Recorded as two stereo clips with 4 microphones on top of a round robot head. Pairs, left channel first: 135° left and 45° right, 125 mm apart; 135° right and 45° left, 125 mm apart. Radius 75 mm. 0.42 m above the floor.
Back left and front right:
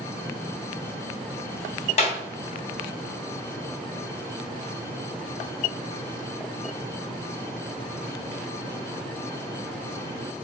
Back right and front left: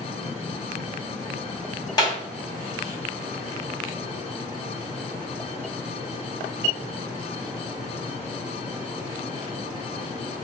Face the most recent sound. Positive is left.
turn(degrees=170)